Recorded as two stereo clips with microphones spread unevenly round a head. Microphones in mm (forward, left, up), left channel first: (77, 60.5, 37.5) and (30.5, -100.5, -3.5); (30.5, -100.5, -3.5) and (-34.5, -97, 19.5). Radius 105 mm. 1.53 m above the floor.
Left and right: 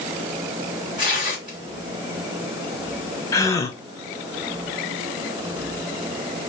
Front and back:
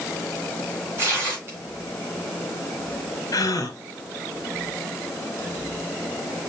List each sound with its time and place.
1.0 s tearing paper: 160° left, 2 m
3.3 s a gasp: 5° right, 0.7 m